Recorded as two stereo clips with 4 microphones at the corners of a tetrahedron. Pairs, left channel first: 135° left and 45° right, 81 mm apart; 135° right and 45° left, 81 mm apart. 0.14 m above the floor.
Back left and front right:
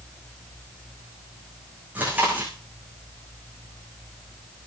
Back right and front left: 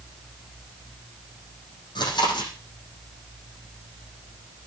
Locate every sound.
1.9 s chewing: 115° right, 9 m